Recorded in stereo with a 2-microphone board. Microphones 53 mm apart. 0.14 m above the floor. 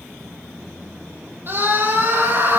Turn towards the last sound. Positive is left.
turn(degrees=-45)  # may be behind; listen again after turning